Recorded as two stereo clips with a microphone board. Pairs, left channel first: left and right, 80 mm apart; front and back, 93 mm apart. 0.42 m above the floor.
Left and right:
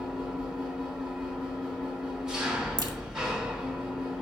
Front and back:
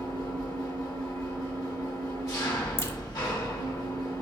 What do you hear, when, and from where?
0.0 s an engine running: 15° right, 1.2 m
2.8 s a crack: 60° right, 0.7 m